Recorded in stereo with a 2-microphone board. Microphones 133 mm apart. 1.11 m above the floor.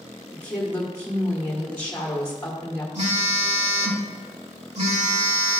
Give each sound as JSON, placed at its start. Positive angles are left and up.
{"t": 0.3, "sound": "a woman speaking", "side_deg": 15, "distance_m": 1.5}
{"t": 3.0, "sound": "a phone buzzing", "side_deg": -60, "distance_m": 1.8}